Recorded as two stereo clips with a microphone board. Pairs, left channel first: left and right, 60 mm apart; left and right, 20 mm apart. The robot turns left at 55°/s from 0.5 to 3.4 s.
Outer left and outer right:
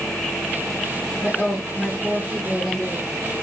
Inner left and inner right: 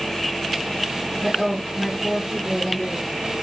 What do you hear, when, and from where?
1.2 s a woman speaking: 65° left, 1.1 m; by 3.1 s 35° right, 1.1 m